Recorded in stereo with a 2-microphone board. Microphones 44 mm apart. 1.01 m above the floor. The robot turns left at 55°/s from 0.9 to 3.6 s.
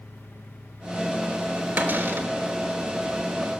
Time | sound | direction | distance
1.8 | a cupboard door | 40° right (ahead or behind) | 1.2 m